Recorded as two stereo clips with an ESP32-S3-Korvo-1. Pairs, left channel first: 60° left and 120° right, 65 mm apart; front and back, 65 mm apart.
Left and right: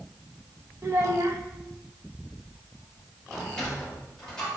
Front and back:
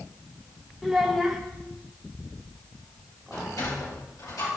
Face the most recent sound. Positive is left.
turn(degrees=-20)